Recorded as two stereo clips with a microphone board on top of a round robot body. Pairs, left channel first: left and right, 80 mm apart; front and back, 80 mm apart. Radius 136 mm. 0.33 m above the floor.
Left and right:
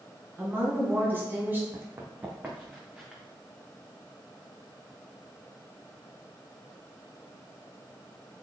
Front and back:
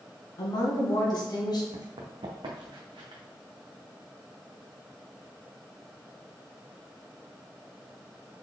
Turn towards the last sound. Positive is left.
turn(degrees=-170)